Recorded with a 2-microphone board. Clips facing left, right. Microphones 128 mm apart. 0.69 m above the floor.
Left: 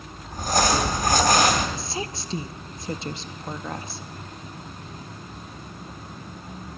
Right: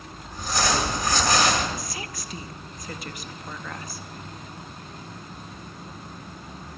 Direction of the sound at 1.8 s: 30° left (ahead or behind).